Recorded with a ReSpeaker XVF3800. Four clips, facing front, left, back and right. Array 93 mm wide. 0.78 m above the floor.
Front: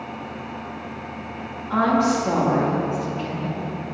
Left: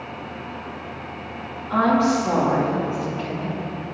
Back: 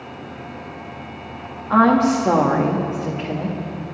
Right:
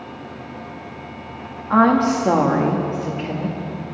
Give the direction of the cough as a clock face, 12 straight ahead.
No cough in this recording.